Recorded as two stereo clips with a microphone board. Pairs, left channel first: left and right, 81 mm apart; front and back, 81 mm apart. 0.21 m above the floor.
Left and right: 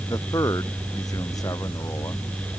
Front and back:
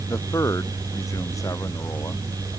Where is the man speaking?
50° left.